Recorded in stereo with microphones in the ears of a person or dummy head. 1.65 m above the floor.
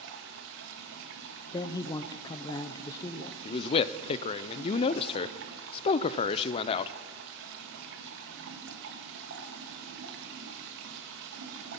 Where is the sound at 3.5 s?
35° left (ahead or behind), 0.5 m.